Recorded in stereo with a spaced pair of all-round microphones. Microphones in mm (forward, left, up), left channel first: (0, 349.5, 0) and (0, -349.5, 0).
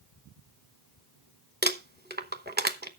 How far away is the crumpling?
About 0.9 m.